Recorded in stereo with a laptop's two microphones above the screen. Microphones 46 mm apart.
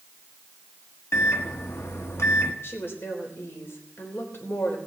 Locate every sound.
1.1 s a microwave: 60° left (ahead or behind), 1.0 m
2.6 s a woman speaking: 55° left (ahead or behind), 3.5 m